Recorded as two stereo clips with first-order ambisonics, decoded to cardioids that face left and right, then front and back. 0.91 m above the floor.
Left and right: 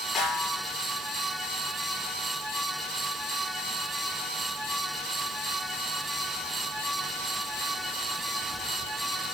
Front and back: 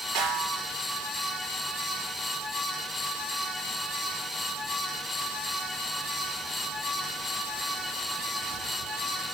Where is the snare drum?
145° left, 6.5 m.